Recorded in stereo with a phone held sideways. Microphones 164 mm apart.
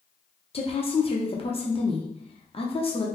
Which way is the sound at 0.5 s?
35° left (ahead or behind).